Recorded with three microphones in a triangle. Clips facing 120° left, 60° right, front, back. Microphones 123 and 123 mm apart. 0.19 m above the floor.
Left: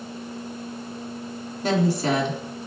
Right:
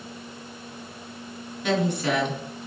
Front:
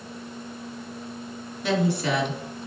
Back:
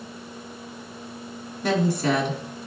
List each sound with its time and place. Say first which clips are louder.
1.6 s a woman speaking: left 2 dB, back 2 dB; 160° left, 2 m